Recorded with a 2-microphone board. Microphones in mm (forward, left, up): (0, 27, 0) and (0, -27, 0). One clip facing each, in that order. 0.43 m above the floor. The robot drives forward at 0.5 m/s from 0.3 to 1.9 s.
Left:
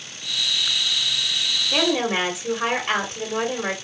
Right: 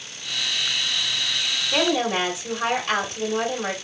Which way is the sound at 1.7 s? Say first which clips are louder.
Even; 30° left (ahead or behind).